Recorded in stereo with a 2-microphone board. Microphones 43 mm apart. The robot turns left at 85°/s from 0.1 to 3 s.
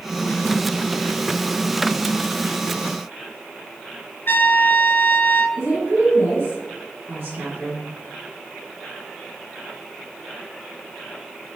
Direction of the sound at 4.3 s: 50° left (ahead or behind).